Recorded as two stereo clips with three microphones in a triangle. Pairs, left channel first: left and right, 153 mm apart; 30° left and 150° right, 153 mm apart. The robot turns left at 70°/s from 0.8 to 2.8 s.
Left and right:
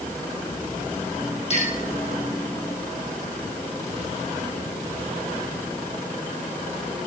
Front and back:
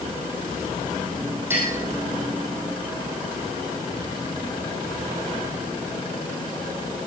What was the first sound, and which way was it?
A clink, 135° left.